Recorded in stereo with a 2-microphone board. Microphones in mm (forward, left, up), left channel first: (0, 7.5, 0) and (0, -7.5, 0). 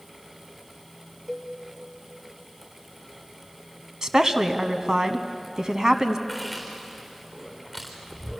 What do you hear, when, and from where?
1.3 s a cowbell: 10° right (ahead or behind), 4.5 m
4.0 s a woman speaking: 40° right (ahead or behind), 1.3 m
6.3 s chewing: 5° right (ahead or behind), 4 m